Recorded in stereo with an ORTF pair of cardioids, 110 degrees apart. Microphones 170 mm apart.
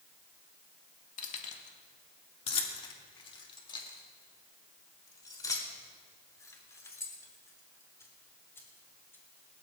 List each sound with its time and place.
1.2 s keys jangling: 50° left, 2 m; by 9.6 s 15° left, 6 m